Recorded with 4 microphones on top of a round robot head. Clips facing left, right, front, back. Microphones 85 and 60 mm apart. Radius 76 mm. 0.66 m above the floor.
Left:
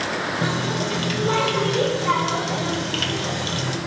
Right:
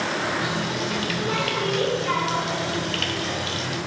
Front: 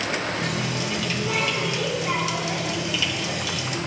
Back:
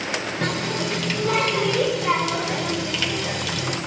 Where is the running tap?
150° left, 1.5 m.